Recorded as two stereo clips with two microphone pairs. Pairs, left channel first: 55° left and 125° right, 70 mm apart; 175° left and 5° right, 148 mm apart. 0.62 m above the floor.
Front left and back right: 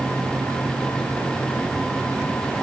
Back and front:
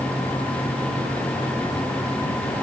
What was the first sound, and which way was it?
Only background noise.